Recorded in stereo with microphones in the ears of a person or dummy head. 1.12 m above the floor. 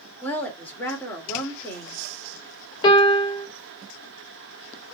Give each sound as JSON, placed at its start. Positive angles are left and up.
{"t": 0.2, "sound": "a woman speaking", "side_deg": 10, "distance_m": 1.8}
{"t": 2.8, "sound": "a piano", "side_deg": 30, "distance_m": 1.3}